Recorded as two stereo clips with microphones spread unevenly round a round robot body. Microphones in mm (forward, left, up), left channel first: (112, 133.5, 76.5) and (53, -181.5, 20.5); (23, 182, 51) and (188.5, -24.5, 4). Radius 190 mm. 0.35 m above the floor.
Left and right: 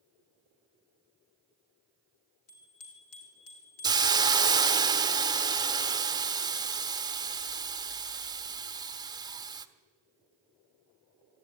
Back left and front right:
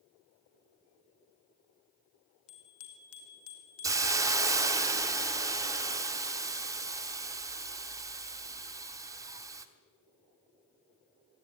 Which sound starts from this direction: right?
A hiss, at 3.8 s.